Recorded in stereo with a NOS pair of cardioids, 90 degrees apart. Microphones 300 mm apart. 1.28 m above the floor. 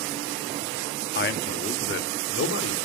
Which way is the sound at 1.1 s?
35° left.